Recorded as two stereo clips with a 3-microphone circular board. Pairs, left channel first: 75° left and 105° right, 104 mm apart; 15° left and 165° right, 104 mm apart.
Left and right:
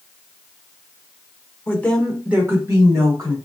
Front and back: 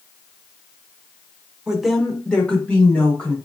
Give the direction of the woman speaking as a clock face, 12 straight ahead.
8 o'clock.